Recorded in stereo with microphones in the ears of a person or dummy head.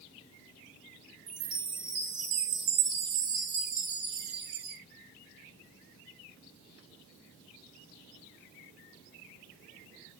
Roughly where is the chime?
Right.